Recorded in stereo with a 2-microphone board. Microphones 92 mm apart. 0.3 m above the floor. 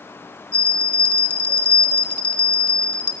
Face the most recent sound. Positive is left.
turn(degrees=15)  # may be behind; listen again after turning